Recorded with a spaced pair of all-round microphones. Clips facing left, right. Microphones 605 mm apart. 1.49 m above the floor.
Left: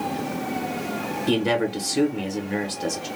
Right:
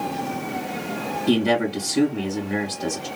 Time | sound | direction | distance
1.3 | a man speaking | centre (ahead or behind) | 1.1 m